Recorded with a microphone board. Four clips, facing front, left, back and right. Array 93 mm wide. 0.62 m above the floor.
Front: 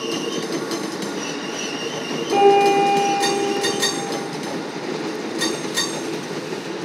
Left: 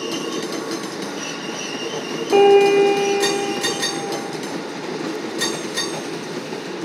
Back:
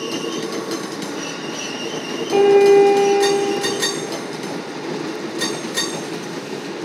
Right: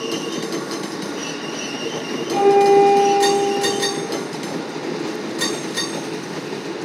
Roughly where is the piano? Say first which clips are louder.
Left 1 dB, back 3 dB; left.